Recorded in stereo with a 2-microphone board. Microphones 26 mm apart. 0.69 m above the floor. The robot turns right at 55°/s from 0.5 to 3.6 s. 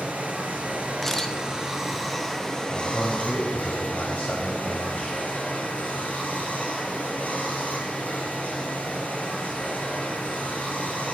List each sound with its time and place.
0.0 s running water: 80° right, 5.5 m; by 11.1 s 90° left, 5.5 m
1.0 s a camera shutter: 10° left (ahead or behind), 1.5 m; by 1.4 s 25° left (ahead or behind), 1.5 m
2.7 s a man speaking: 60° left, 4 m; by 5.2 s 110° left, 4 m